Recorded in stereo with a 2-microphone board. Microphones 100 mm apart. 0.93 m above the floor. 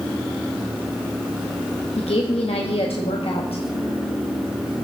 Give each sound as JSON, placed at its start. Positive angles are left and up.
{"t": 2.0, "sound": "a woman speaking", "side_deg": 75, "distance_m": 0.9}